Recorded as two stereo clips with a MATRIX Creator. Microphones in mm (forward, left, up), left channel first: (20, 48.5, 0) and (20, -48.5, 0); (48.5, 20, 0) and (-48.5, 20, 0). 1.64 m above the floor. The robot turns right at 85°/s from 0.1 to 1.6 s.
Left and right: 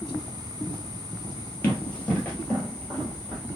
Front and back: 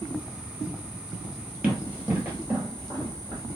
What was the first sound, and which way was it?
Running footsteps, 125° left.